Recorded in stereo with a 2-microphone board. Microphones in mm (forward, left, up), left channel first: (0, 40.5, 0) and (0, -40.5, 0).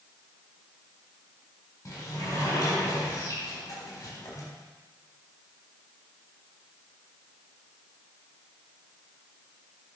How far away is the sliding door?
About 3.5 m.